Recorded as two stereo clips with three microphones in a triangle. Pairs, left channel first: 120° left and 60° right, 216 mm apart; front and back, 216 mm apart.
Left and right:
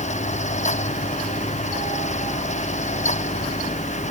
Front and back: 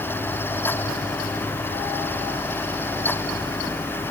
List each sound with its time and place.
Only background noise.